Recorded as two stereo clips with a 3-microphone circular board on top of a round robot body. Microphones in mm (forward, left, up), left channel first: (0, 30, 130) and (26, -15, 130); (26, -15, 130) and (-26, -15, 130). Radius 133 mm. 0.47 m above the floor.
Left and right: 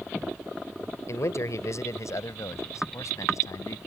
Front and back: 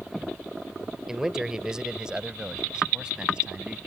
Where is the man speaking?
100° left; by 3.8 s 105° left.